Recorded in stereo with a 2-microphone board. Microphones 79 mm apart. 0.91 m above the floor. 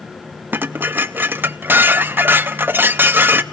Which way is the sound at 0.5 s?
30° right (ahead or behind).